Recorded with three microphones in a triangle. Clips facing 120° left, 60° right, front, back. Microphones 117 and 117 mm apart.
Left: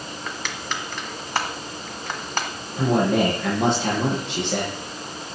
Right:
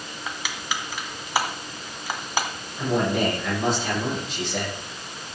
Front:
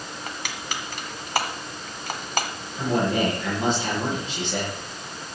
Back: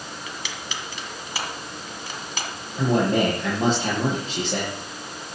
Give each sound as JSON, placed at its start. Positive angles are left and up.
{"t": 0.3, "sound": "crushing", "azimuth_deg": 20, "distance_m": 1.8}
{"t": 2.8, "sound": "a man speaking", "azimuth_deg": 130, "distance_m": 7.0}